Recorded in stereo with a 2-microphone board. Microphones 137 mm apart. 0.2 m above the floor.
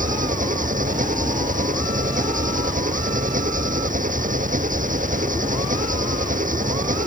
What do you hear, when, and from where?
0.0 s an engine running: 75° right (ahead or behind)